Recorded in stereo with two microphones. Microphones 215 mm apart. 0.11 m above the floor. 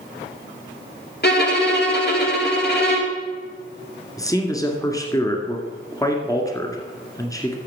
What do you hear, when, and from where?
1.2 s a violin: 50° left (ahead or behind), 2.5 m
4.2 s a man speaking: 15° left (ahead or behind), 1.8 m